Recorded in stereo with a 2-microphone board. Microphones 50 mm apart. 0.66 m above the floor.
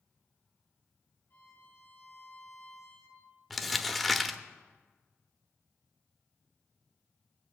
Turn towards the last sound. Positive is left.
turn(degrees=5)  # may be behind; listen again after turning